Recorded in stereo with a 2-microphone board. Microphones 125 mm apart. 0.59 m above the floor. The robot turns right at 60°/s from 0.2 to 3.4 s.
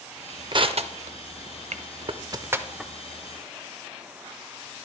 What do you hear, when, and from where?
0.5 s crushing: 40° right (ahead or behind), 0.5 m; by 2.9 s 5° left (ahead or behind), 0.5 m